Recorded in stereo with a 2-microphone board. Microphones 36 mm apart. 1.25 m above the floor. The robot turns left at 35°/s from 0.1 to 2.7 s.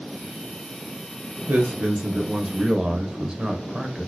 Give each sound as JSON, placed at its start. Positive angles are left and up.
{"t": 1.5, "sound": "a man speaking", "azimuth_deg": -110, "distance_m": 0.8}